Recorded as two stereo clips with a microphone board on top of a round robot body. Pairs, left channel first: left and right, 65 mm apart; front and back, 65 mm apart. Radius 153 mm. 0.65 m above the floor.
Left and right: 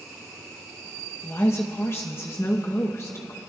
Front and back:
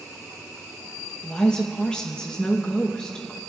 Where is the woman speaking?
70° left, 1.3 m.